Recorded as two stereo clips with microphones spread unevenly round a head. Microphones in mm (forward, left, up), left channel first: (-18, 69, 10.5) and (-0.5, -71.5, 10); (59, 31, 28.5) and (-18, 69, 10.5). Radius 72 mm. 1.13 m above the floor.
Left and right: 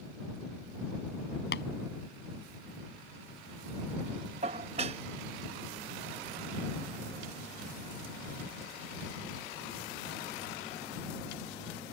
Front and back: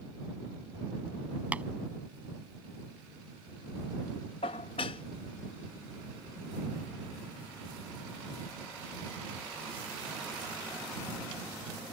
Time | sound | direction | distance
1.5 | tapping | 80° left | ?
4.4 | dishes clattering | 35° right | ?